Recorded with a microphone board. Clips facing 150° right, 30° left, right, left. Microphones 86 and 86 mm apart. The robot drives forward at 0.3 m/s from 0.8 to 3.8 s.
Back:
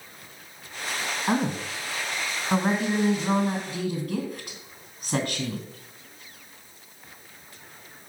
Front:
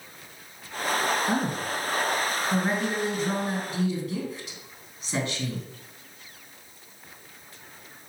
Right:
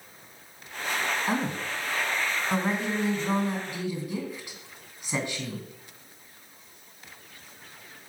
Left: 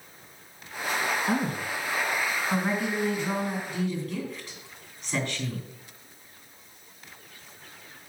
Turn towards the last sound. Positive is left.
turn(degrees=-160)